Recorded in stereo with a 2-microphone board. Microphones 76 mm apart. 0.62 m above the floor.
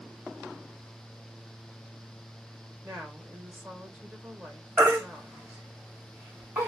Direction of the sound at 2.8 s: 25° right (ahead or behind).